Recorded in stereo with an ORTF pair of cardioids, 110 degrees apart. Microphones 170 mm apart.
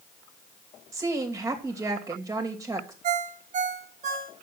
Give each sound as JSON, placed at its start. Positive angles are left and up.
{"t": 0.9, "sound": "a woman speaking", "azimuth_deg": -20, "distance_m": 2.5}
{"t": 3.0, "sound": "a ringtone", "azimuth_deg": -50, "distance_m": 1.6}